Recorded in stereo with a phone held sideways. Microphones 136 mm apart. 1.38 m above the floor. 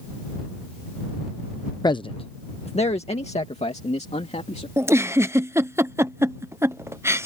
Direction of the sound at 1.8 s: 30° left (ahead or behind).